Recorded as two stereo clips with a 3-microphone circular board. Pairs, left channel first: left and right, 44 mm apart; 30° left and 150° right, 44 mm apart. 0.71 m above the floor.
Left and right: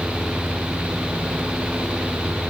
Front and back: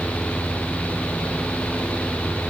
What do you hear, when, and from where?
Only background noise.